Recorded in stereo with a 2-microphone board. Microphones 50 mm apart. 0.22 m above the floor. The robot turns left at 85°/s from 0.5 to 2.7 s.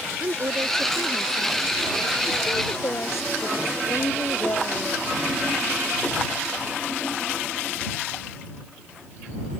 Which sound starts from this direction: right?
A woman speaking, at 0.2 s.